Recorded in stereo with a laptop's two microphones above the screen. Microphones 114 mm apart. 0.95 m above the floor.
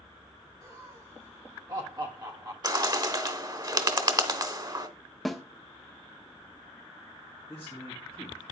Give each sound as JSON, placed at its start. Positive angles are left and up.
{"t": 0.6, "sound": "laughter", "side_deg": -35, "distance_m": 3.0}
{"t": 2.6, "sound": "a bird", "side_deg": -40, "distance_m": 1.0}
{"t": 5.2, "sound": "a snare drum", "side_deg": 0, "distance_m": 0.7}
{"t": 7.5, "sound": "a man speaking", "side_deg": 25, "distance_m": 2.0}